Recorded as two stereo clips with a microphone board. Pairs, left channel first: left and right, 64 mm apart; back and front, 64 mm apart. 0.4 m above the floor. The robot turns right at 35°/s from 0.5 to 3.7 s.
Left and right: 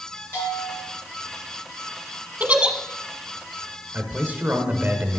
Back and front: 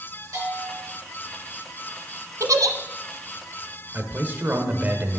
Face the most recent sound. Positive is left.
turn(degrees=-45)